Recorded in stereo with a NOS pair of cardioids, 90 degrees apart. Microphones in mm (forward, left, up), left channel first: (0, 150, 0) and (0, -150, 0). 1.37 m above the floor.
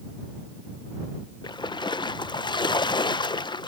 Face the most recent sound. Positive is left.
turn(degrees=15)